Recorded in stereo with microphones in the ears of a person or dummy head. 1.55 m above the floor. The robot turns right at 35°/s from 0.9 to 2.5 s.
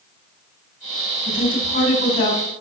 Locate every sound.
1.2 s a woman speaking: 45° left, 4 m; by 2.4 s 85° left, 4 m